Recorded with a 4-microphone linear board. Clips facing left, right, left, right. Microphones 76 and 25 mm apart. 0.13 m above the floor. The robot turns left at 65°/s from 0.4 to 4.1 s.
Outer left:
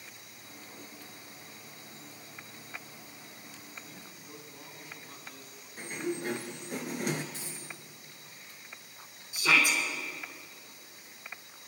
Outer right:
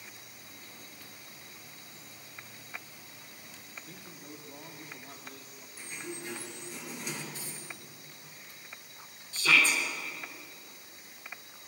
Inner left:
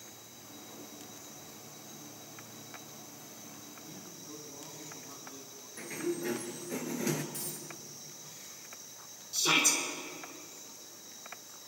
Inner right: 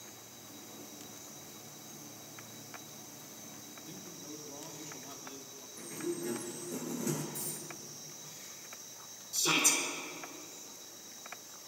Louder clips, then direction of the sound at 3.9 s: Outer right 1 dB, inner right 2 dB; 60° right (ahead or behind).